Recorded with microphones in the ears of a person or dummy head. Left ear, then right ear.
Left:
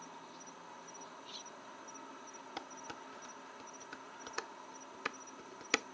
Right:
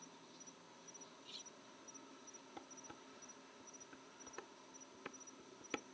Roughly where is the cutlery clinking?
Centre.